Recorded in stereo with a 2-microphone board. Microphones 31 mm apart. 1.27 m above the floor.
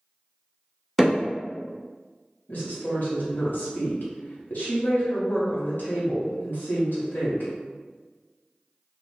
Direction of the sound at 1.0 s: 5° left (ahead or behind).